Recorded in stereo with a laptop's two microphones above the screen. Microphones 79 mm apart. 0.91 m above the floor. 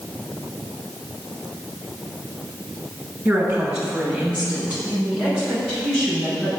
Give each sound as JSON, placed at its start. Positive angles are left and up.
{"t": 3.2, "sound": "a woman speaking", "side_deg": -40, "distance_m": 5.0}